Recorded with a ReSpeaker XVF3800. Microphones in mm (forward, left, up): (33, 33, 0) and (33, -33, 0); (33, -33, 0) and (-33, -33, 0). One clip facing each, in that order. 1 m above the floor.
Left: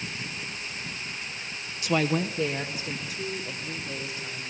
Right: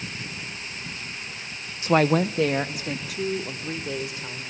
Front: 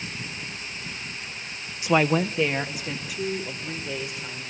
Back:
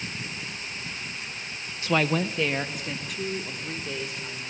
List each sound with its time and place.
1.8 s a woman speaking: 60° right, 0.5 m; by 4.4 s 85° right, 4 m